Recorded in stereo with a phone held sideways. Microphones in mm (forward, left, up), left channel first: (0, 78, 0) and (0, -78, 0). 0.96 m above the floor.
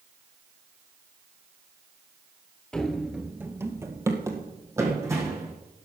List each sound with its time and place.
2.7 s running footsteps: 5° left (ahead or behind), 1.0 m; by 5.5 s 20° right (ahead or behind), 3.5 m